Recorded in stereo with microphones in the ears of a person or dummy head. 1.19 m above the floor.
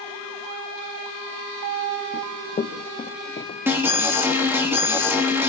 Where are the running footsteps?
30° left (ahead or behind), 3 m; by 3.6 s 35° left (ahead or behind), 4.5 m.